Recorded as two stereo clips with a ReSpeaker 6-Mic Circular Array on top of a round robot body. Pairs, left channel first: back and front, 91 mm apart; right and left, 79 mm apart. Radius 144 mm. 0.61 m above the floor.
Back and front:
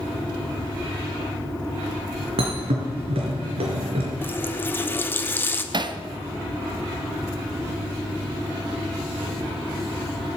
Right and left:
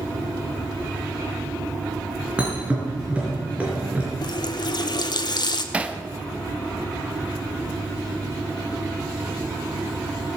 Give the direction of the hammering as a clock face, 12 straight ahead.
11 o'clock.